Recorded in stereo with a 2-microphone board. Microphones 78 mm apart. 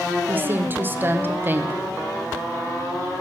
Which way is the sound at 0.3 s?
25° right (ahead or behind).